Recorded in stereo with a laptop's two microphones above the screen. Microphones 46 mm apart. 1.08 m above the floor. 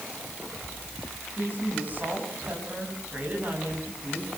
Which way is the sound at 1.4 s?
35° right (ahead or behind).